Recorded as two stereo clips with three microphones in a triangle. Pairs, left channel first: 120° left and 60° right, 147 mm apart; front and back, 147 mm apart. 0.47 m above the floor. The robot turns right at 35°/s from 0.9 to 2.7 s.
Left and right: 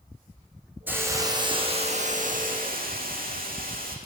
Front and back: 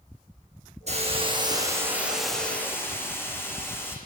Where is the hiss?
140° right, 4.5 m; by 4.0 s 75° right, 4.5 m.